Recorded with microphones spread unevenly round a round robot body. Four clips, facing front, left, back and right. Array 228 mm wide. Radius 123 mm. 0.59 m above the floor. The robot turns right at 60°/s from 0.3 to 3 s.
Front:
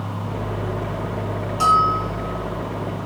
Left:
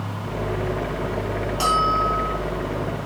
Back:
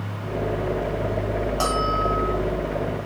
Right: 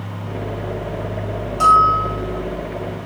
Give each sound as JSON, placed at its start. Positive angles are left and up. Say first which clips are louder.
{"t": 1.6, "sound": "a bell", "louder": "right 8 dB, front 8 dB", "azimuth_deg": -175, "distance_m": 3.0}